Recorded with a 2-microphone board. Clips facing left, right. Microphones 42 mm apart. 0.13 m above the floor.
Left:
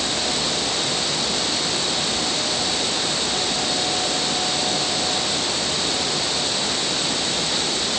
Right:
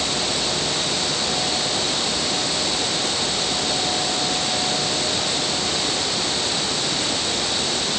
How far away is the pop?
No pop in this recording.